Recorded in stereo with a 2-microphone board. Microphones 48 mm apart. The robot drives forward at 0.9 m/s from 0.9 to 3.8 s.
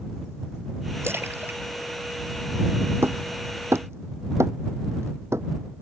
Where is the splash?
55° right (ahead or behind); by 1.6 s 45° right (ahead or behind).